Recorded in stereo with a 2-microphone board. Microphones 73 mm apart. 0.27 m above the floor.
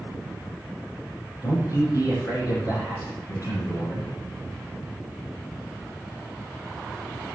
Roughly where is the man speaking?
Left.